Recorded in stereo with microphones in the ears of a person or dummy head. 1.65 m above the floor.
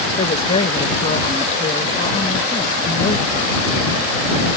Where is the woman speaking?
30° left (ahead or behind).